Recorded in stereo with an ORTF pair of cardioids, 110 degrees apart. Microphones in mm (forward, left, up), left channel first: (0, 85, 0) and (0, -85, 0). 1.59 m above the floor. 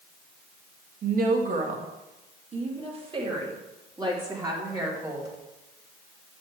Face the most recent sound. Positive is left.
turn(degrees=-15)